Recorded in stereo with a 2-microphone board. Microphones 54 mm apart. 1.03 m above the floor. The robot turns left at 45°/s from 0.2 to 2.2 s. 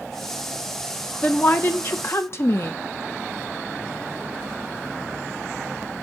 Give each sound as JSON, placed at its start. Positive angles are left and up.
{"t": 1.2, "sound": "a woman speaking", "azimuth_deg": 145, "distance_m": 0.9}